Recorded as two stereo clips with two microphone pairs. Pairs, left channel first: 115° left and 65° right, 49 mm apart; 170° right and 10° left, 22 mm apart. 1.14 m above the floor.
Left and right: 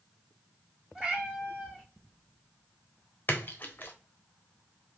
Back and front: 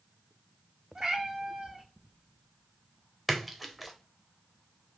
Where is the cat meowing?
5° right, 1.2 m.